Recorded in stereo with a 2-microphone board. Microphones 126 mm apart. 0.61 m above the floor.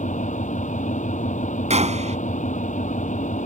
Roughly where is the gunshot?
Right.